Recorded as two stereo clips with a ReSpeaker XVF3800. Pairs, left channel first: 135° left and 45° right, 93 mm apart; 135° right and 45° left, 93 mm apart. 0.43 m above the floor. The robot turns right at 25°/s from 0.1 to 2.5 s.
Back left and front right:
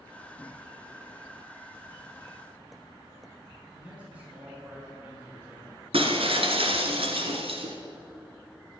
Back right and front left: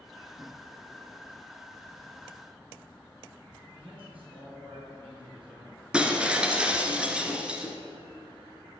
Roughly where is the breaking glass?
Ahead right.